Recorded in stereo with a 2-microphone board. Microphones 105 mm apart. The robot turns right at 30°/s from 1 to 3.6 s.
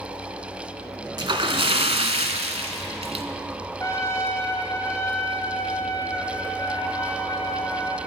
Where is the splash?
130° right, 0.8 m; by 3.2 s 70° right, 0.8 m.